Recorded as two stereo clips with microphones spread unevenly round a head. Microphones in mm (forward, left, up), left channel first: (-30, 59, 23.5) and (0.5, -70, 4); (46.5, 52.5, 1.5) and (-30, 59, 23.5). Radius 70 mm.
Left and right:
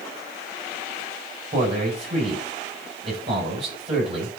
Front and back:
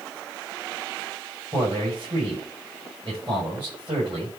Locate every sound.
1.5 s a man speaking: 125° right, 6 m